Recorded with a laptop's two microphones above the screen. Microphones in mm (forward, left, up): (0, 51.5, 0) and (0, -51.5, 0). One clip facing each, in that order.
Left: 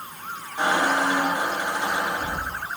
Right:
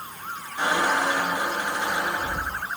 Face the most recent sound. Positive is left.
turn(degrees=25)  # may be behind; listen again after turning